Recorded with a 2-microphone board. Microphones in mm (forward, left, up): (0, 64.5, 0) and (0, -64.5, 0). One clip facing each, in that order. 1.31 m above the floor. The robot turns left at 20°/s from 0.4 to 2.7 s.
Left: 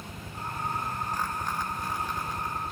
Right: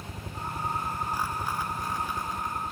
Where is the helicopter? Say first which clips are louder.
Right 1 dB; 145° right; by 2.7 s 170° left.